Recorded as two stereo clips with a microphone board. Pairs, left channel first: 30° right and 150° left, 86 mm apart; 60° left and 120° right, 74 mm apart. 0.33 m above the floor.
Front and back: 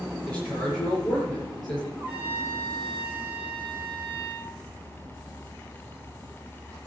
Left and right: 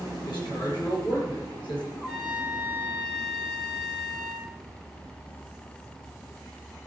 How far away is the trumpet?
About 3.5 m.